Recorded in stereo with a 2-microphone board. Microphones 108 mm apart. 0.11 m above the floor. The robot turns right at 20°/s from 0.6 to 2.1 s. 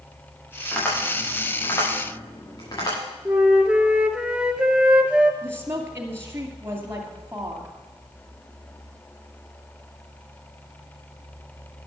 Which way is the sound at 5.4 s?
25° right (ahead or behind).